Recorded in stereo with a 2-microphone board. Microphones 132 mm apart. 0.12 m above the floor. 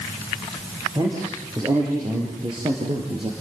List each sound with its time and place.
0.9 s a man speaking: 30° right (ahead or behind), 7 m; by 3.3 s 45° right (ahead or behind), 4 m